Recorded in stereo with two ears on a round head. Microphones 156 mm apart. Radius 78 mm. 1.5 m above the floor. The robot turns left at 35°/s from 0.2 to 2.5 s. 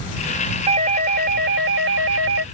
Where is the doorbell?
35° right; by 2.4 s 100° right.